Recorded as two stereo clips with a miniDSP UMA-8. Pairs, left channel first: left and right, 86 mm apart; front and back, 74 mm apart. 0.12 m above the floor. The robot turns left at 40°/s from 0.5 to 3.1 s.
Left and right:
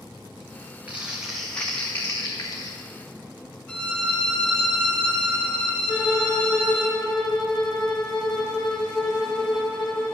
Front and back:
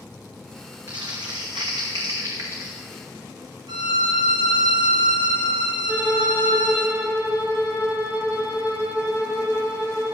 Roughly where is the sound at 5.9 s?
Left.